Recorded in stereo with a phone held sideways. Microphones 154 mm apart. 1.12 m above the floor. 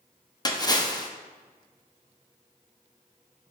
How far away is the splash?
About 0.6 m.